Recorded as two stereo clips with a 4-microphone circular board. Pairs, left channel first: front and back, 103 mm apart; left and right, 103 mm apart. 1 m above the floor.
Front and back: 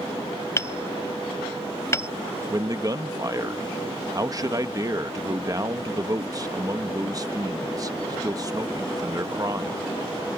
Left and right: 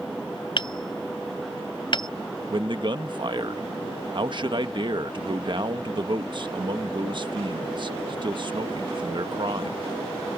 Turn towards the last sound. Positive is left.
turn(degrees=-125)